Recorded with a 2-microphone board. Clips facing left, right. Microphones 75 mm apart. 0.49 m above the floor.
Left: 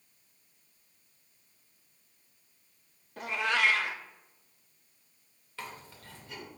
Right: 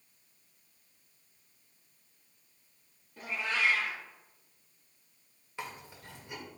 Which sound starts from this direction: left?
A cat meowing, at 3.2 s.